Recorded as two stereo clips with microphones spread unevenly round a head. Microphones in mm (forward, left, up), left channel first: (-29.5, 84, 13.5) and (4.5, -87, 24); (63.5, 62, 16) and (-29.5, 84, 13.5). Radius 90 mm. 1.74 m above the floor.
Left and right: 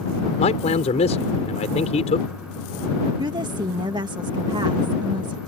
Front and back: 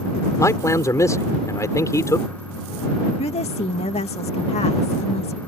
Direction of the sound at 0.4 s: 45° left.